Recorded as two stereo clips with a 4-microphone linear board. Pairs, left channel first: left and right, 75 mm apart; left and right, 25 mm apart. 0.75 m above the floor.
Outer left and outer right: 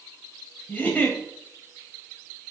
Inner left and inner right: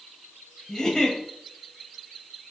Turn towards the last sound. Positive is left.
turn(degrees=25)  # may be behind; listen again after turning